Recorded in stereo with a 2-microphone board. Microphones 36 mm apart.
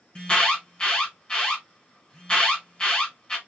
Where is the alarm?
25° left (ahead or behind), 1.4 m.